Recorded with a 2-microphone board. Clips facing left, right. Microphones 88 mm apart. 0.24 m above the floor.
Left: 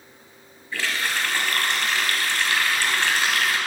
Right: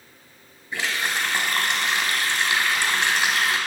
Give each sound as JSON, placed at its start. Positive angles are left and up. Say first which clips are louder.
{"t": 0.7, "sound": "a running tap", "louder": "even", "side_deg": -20, "distance_m": 1.1}